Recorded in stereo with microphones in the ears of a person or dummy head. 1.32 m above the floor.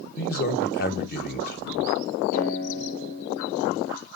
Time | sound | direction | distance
0.2 | a man speaking | 55° left (ahead or behind) | 1.6 m
2.3 | a guitar | 40° left (ahead or behind) | 6.5 m